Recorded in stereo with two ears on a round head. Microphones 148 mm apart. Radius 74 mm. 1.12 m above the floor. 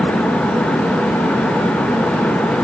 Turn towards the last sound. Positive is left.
No sound to turn to.